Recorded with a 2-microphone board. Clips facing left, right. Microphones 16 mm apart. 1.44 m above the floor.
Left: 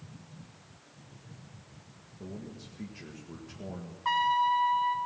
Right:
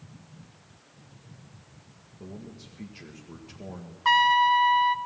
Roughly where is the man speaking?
Centre.